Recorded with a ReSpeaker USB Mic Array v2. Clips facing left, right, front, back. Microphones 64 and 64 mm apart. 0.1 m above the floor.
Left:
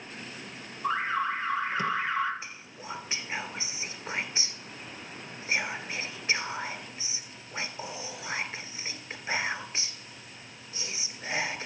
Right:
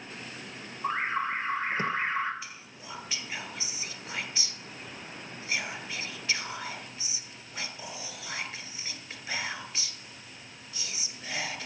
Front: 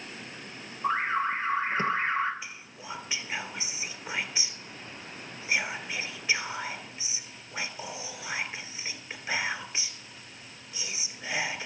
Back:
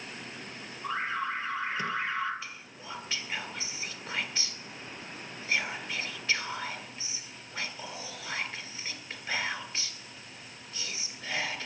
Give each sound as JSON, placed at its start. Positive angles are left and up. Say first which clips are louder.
{"t": 0.8, "sound": "an alarm", "louder": "left 1 dB, front 5 dB", "azimuth_deg": -45, "distance_m": 1.3}
{"t": 2.4, "sound": "whispering", "louder": "left 2 dB, front 1 dB", "azimuth_deg": 60, "distance_m": 1.2}